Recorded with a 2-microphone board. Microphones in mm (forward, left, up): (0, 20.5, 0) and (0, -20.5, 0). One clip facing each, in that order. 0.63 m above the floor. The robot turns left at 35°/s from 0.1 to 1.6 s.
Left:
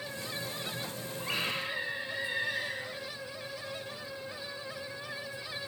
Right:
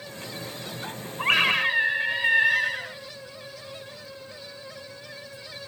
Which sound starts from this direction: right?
A scream, at 1.2 s.